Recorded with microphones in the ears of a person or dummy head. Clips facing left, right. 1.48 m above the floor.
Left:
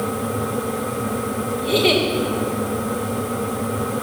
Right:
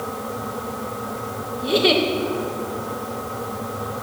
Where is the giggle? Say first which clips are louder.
Even; 5° right (ahead or behind), 1.7 m.